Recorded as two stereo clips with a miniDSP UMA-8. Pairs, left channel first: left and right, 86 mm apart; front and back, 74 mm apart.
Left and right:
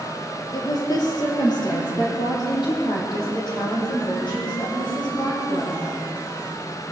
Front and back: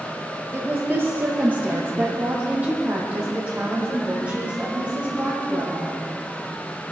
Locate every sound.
0.5 s a woman speaking: 120° left, 2.0 m; by 5.9 s 105° left, 5.5 m